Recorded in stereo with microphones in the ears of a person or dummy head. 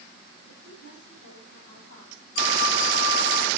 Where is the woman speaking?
80° left, 8 m; by 2.2 s 85° left, 7.5 m.